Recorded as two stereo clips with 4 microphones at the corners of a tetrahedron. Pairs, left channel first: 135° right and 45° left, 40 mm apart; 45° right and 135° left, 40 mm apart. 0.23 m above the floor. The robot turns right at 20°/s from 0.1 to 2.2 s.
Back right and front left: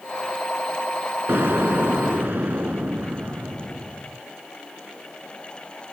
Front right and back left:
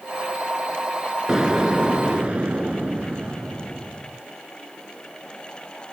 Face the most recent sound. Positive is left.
turn(degrees=80)